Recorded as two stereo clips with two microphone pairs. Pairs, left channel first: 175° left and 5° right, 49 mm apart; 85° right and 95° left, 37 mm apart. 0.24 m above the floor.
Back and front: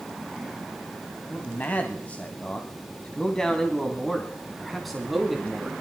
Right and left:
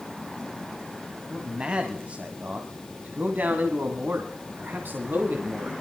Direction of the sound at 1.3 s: 150° left.